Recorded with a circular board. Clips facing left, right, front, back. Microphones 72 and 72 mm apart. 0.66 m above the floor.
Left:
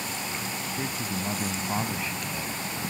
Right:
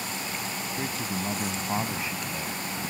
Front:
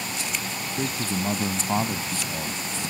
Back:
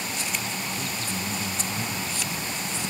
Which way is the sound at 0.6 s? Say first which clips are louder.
Even, front 3 dB; straight ahead.